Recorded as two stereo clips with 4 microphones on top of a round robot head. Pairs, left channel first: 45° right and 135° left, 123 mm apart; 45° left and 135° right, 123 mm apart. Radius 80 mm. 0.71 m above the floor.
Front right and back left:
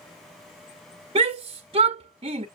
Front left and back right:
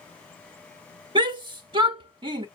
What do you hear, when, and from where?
1.1 s a shout: straight behind, 0.9 m